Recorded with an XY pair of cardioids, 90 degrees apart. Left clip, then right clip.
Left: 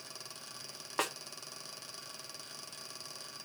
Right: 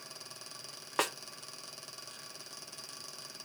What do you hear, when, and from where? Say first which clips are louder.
1.0 s a snare drum: right 2 dB; 30° right, 0.5 m